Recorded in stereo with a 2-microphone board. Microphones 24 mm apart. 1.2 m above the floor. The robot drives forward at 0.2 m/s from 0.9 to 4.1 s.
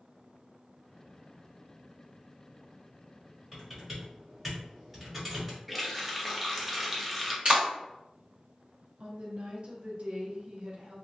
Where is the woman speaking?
50° right (ahead or behind), 0.8 m.